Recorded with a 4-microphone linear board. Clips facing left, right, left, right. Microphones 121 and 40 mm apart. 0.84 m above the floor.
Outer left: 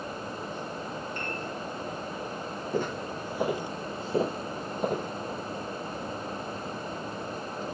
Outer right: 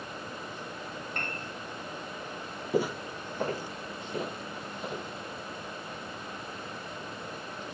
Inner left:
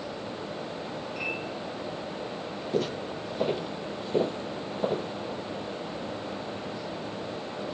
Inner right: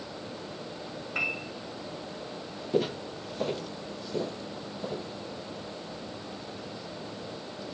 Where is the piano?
60° right (ahead or behind), 9 m.